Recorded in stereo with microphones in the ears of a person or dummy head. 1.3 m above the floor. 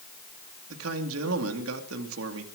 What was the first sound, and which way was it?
A man speaking, 75° right (ahead or behind).